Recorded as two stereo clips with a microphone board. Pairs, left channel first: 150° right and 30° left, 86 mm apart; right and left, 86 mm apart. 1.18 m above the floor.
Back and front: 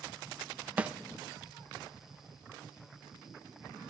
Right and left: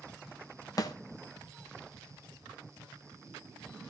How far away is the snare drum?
About 0.9 m.